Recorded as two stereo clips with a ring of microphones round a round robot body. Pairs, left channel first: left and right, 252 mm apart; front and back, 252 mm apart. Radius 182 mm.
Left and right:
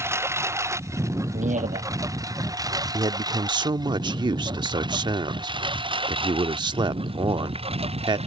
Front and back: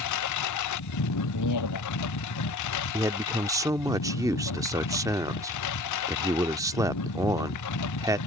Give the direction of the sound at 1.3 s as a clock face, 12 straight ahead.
1 o'clock.